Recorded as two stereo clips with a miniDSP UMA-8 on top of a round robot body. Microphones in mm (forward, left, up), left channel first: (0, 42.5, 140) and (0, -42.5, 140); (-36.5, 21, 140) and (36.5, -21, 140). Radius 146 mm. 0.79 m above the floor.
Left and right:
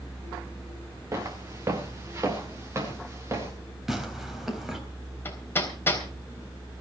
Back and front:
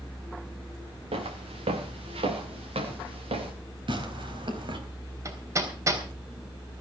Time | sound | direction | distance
1.1 | footsteps | 30° right | 3 m
3.9 | tearing paper | 5° right | 4 m
5.2 | hammering | 25° left | 3.5 m